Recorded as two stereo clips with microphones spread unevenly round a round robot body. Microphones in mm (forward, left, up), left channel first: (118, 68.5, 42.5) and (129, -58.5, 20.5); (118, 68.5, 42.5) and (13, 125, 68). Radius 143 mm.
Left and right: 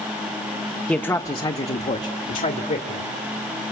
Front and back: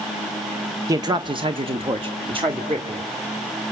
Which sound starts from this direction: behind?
A man speaking, at 0.9 s.